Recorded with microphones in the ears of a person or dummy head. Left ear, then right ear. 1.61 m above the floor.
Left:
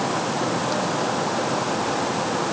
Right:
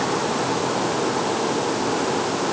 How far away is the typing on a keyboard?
No typing on a keyboard in this recording.